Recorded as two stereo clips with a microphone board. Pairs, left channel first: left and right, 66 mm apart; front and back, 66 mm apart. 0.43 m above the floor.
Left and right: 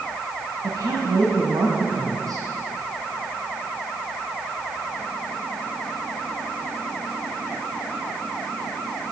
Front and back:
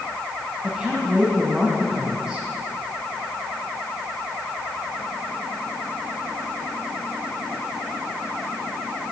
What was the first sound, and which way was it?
A woman speaking, 105° right.